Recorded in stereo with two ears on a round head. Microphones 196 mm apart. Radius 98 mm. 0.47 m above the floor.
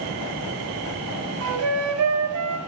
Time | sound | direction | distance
1.4 | a flute | 75° right (ahead or behind) | 1.9 m